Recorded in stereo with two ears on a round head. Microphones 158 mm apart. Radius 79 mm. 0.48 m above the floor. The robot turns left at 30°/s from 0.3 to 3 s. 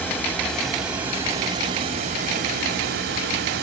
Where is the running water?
10° left, 3 m; by 3.6 s 70° right, 3 m.